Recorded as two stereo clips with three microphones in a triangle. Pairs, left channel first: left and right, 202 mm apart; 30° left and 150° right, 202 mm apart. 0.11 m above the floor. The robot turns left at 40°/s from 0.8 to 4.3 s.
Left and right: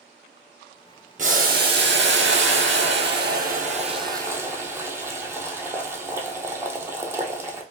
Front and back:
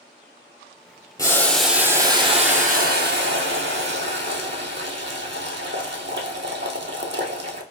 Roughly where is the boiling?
Ahead right.